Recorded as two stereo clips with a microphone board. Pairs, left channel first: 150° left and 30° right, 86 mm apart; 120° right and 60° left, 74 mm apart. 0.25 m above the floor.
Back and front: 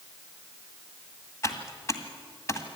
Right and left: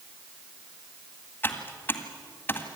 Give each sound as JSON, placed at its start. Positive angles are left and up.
{"t": 1.4, "sound": "typing on a keyboard", "azimuth_deg": -170, "distance_m": 1.9}